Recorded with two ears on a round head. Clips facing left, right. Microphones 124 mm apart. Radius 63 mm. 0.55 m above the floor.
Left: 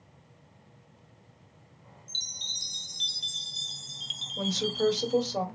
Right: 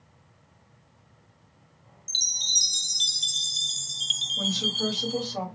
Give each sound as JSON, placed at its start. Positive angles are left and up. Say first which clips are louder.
{"t": 2.1, "sound": "a chime", "louder": "right 3 dB", "side_deg": -50, "distance_m": 0.5}
{"t": 4.4, "sound": "a woman speaking", "louder": "left 2 dB", "side_deg": 45, "distance_m": 3.0}